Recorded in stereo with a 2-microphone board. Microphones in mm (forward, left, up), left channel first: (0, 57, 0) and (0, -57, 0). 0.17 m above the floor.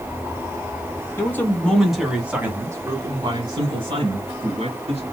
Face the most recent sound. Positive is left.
turn(degrees=-60)  # may be behind; listen again after turning